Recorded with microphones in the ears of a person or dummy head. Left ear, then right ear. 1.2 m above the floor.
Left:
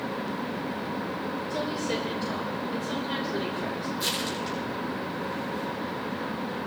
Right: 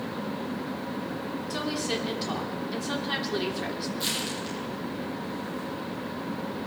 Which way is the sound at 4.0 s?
5° left (ahead or behind).